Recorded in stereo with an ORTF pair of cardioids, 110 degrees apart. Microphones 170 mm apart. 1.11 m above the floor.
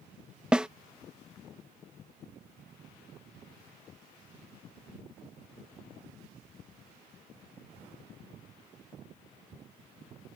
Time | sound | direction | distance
0.5 | a snare drum | 5° right | ?